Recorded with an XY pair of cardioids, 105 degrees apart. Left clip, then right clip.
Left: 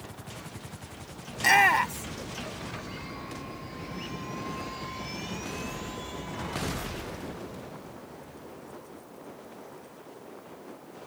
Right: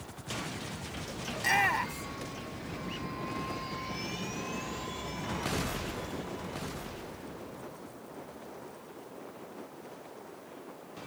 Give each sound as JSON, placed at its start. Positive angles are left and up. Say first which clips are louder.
{"t": 1.3, "sound": "a shout", "louder": "left 7 dB", "azimuth_deg": 45}